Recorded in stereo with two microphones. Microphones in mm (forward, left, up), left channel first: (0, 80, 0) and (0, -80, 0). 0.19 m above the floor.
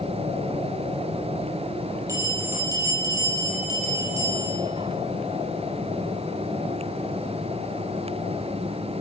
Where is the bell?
20° right (ahead or behind), 3.5 m.